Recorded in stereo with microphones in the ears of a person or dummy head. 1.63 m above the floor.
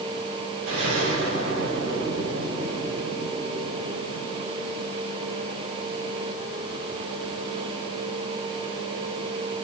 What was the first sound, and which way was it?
An explosion, 75° right (ahead or behind).